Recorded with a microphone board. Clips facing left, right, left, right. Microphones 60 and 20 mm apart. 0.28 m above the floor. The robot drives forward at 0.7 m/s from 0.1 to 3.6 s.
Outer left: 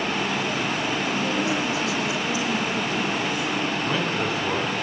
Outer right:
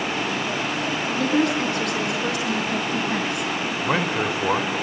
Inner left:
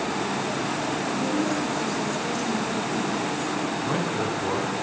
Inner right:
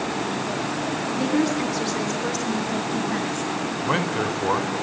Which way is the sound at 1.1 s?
65° right (ahead or behind).